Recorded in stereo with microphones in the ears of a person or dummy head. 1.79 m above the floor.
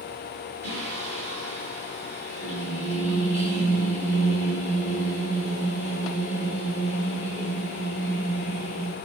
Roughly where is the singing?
Left.